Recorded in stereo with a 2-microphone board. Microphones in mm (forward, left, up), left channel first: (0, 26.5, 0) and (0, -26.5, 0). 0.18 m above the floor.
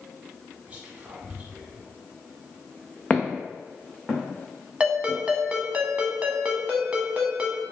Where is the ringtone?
20° right (ahead or behind), 0.7 m.